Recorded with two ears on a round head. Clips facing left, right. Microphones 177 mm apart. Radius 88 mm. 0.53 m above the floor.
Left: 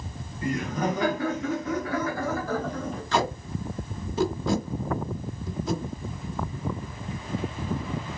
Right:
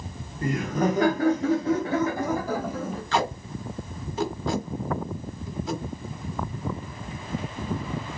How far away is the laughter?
About 1.0 m.